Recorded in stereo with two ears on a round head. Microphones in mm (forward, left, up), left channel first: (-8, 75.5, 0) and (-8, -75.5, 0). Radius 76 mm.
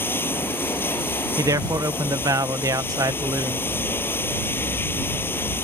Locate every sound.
0.0 s running water: 15° left (ahead or behind)
1.4 s a man speaking: 20° right (ahead or behind)